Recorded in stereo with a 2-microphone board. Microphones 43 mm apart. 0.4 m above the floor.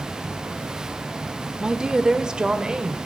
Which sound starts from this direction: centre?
A woman speaking, at 1.6 s.